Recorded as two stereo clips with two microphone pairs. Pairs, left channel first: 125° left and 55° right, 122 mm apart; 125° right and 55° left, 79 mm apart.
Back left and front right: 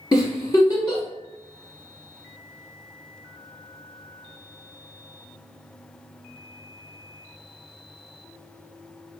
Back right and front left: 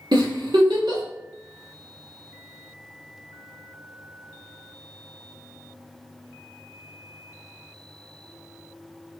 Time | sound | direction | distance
0.1 | a giggle | 65° left | 1.0 m